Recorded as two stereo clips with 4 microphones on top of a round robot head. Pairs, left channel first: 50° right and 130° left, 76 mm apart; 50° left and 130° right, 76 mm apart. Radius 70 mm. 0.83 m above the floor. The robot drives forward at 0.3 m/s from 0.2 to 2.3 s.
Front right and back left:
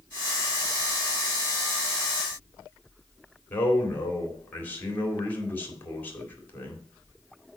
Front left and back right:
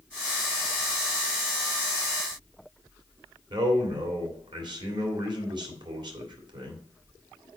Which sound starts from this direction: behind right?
A man speaking, at 3.5 s.